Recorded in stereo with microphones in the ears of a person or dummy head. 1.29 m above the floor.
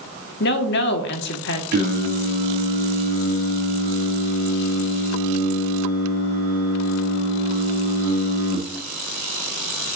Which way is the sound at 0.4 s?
55° left (ahead or behind).